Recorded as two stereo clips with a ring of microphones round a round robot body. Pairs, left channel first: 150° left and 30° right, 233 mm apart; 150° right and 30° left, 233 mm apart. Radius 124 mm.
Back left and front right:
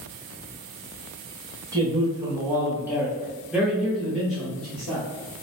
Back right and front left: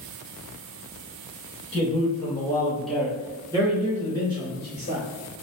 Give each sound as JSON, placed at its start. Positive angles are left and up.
{"t": 1.7, "sound": "a man speaking", "azimuth_deg": -100, "distance_m": 1.1}